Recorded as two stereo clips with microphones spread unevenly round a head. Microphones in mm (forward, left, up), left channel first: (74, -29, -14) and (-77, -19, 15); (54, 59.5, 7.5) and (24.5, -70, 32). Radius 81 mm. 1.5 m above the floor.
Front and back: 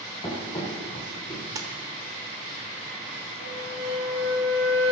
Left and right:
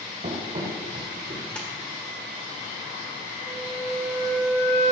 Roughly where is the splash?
Behind.